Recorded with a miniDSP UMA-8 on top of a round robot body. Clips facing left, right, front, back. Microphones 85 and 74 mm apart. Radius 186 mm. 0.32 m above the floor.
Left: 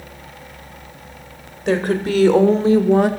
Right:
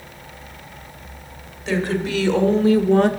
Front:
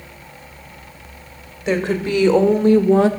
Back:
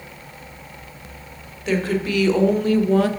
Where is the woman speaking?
60° left, 1.9 m; by 3.1 s 15° left, 1.1 m.